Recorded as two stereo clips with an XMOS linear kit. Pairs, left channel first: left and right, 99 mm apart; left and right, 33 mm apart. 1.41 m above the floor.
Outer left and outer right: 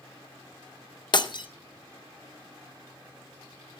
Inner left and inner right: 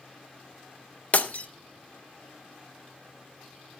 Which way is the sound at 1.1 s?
50° left (ahead or behind).